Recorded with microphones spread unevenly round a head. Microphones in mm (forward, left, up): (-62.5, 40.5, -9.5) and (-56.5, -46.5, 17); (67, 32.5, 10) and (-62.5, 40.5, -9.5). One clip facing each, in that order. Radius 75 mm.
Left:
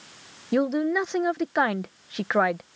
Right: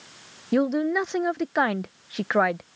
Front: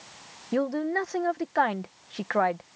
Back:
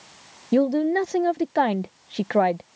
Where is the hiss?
No hiss in this recording.